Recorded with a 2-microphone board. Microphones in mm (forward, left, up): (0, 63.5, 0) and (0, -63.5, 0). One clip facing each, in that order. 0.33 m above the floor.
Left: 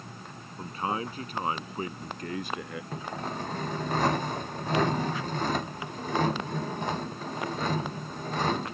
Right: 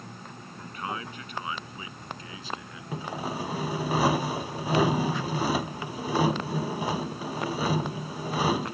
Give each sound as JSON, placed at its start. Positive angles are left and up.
{"t": 0.6, "sound": "a man speaking", "side_deg": 30}
{"t": 2.9, "sound": "sawing", "side_deg": -10}